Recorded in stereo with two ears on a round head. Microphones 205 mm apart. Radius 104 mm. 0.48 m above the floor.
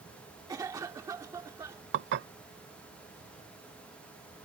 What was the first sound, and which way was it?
A cough, 15° right (ahead or behind).